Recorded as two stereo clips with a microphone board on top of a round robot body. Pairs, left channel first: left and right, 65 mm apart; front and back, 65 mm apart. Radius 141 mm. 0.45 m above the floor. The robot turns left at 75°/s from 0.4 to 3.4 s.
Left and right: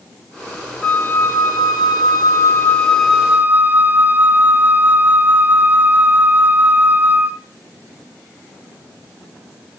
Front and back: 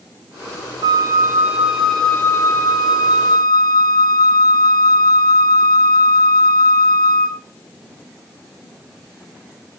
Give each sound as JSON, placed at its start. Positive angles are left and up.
{"t": 0.8, "sound": "a flute", "azimuth_deg": 170, "distance_m": 1.2}